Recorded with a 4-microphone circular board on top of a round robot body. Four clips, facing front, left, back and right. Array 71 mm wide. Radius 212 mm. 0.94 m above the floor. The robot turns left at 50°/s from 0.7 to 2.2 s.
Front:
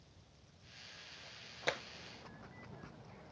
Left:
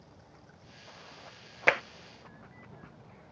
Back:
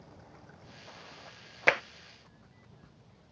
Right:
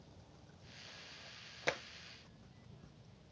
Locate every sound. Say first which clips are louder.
0.0 s running water: left 5 dB, back 13 dB; 145° left; by 3.3 s 70° left
1.7 s tapping: left 12 dB, back 12 dB; 125° left; by 1.8 s 115° left